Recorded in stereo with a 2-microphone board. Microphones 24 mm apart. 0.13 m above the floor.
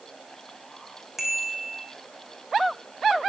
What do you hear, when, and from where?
1.2 s a bicycle bell: 10° right (ahead or behind), 6 m